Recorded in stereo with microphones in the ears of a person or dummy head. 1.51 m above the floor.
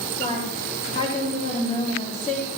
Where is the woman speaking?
35° left (ahead or behind), 6.5 m.